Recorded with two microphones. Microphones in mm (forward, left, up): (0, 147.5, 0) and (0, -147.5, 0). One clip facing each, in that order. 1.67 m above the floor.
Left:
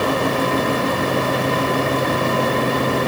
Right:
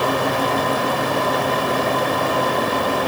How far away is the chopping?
I don't hear chopping.